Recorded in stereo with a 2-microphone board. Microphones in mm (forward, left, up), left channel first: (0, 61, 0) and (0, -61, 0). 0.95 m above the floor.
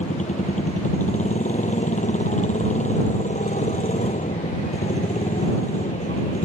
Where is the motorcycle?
75° left (ahead or behind).